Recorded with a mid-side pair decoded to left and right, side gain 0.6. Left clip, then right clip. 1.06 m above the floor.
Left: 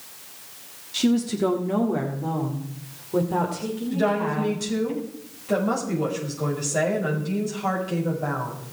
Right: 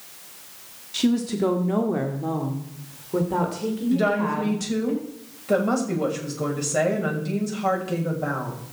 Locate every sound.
0.9 s a woman speaking: 10° right, 1.7 m; by 4.9 s 15° right, 4 m
3.9 s a woman speaking: 25° right, 6.5 m